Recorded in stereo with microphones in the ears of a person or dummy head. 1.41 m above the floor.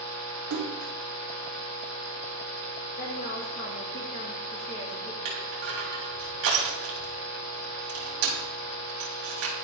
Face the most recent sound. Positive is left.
turn(degrees=-75)  # may be behind; listen again after turning